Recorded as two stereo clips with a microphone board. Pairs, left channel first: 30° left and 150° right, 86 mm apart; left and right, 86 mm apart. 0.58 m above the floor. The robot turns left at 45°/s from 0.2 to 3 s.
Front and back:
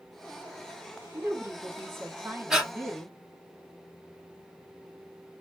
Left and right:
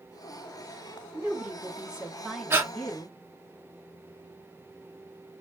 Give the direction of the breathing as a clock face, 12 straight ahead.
2 o'clock.